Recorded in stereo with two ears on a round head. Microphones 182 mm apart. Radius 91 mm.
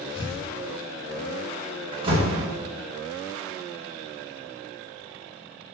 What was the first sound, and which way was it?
Tearing paper, 25° left (ahead or behind).